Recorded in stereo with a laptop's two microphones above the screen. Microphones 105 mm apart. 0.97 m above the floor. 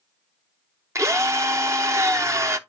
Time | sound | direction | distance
0.9 | a drill | 30° right (ahead or behind) | 0.9 m